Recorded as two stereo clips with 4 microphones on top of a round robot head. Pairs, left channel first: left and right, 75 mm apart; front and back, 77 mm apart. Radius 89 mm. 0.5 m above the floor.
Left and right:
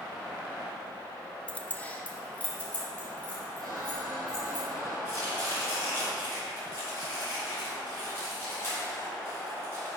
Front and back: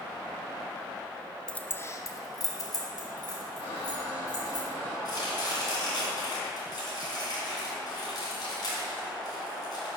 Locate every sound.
1.5 s keys jangling: 55° left, 0.5 m; by 4.6 s 15° left, 2.5 m
3.6 s a squeak: 10° left, 2.5 m
5.0 s chopping: 25° left, 2 m